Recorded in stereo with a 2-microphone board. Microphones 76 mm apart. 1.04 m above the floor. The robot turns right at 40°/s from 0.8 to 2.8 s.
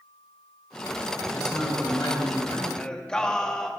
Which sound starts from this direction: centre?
Singing, at 2.8 s.